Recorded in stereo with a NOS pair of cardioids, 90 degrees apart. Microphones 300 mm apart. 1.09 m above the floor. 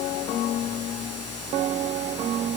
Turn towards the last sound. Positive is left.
No sound to turn to.